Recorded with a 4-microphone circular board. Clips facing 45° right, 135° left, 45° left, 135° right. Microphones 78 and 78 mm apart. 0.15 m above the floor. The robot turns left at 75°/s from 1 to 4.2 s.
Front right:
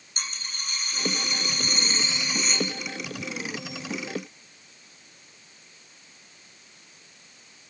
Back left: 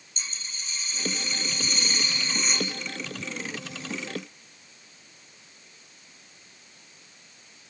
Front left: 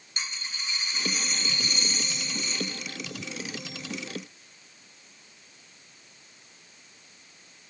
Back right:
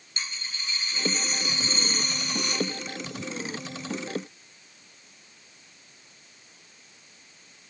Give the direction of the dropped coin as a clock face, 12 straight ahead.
1 o'clock.